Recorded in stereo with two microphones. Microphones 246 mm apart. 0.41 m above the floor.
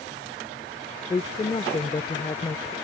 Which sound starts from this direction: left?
A woman speaking, at 1.1 s.